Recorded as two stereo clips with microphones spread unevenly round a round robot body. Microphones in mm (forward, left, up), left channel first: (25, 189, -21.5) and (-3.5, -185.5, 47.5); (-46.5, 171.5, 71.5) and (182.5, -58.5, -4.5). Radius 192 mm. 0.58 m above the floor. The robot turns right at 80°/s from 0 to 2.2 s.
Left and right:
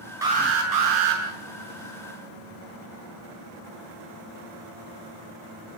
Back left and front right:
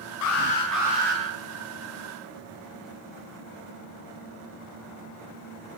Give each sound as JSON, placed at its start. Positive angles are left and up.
{"t": 0.2, "sound": "an alarm", "azimuth_deg": -175, "distance_m": 8.0}